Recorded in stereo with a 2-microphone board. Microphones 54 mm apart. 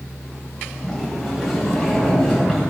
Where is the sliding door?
5° right (ahead or behind), 5 m.